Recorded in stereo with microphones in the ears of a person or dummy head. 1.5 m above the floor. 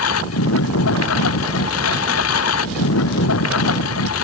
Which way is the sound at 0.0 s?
75° left (ahead or behind).